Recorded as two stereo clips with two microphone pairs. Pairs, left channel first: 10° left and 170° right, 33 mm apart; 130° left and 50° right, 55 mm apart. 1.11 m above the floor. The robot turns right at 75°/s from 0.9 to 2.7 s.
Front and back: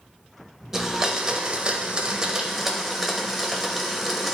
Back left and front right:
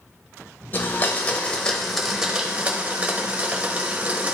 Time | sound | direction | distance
0.7 | a blender | 130° left | 1.0 m